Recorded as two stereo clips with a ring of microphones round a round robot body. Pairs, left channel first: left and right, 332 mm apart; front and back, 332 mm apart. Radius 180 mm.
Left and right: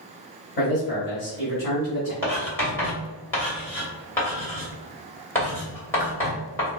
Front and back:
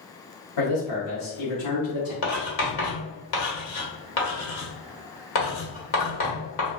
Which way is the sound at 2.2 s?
10° left.